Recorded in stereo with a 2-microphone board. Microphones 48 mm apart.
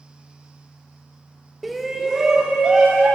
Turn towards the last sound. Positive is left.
turn(degrees=-20)  # may be behind; listen again after turning